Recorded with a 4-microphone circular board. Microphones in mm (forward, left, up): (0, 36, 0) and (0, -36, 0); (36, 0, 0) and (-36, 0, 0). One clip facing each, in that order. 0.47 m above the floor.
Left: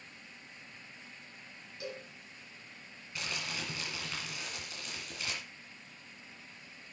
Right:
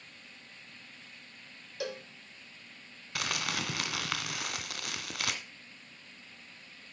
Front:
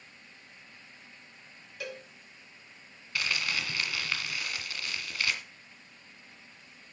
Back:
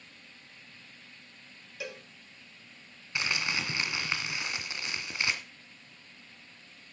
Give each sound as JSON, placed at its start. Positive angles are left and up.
{"t": 1.8, "sound": "a cowbell", "azimuth_deg": -95, "distance_m": 1.2}
{"t": 3.1, "sound": "crumpling", "azimuth_deg": -110, "distance_m": 1.9}